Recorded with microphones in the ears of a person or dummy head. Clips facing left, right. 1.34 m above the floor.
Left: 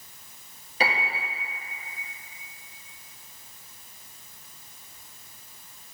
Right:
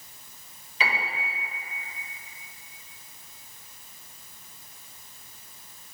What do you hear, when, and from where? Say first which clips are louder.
0.8 s a piano: left 3 dB; 40° left (ahead or behind), 1.3 m